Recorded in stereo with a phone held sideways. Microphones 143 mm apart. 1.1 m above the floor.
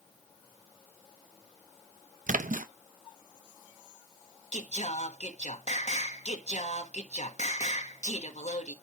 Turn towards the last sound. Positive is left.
turn(degrees=55)  # may be behind; listen again after turning